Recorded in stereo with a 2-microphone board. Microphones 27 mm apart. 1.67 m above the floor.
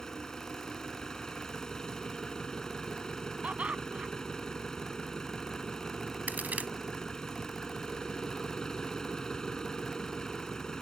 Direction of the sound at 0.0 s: 25° left (ahead or behind).